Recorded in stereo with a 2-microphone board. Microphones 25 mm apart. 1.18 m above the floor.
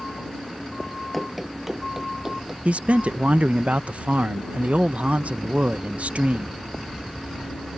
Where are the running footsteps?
Centre (ahead or behind); by 2.5 s 25° right (ahead or behind).